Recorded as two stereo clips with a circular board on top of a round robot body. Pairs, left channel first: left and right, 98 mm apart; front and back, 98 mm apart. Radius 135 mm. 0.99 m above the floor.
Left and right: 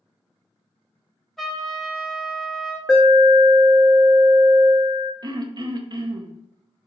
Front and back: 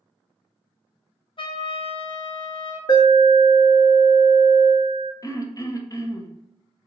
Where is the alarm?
5° left, 1.0 m.